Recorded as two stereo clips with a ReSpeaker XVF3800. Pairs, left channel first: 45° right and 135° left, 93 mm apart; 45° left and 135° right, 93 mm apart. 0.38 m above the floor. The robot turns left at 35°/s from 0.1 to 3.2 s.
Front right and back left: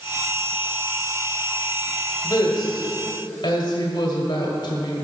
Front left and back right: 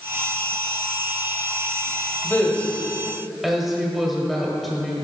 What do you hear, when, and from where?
2.2 s a woman speaking: 15° right, 1.4 m; by 4.9 s 45° right, 1.4 m